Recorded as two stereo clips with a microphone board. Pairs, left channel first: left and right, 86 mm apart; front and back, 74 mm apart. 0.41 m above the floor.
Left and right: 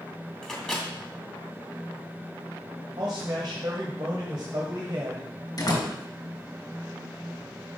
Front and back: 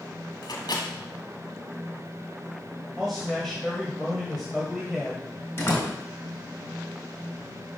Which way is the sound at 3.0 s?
90° right.